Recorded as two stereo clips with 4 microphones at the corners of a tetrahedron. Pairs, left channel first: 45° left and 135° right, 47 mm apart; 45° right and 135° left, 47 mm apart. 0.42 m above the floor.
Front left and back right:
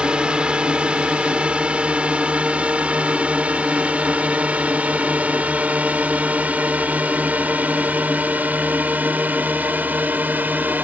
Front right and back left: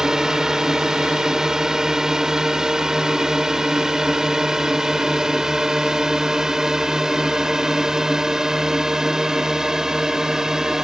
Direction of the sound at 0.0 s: 165° right.